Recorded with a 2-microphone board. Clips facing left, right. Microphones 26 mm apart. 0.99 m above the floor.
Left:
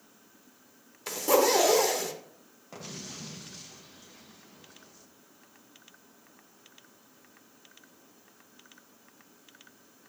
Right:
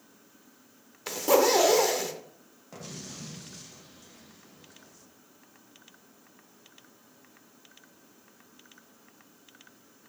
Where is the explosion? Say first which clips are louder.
Even; 15° left (ahead or behind), 0.9 m.